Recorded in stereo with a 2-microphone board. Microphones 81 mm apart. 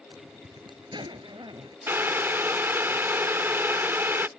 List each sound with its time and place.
0.1 s a zipper: 80° right
1.9 s boiling: 30° right (ahead or behind)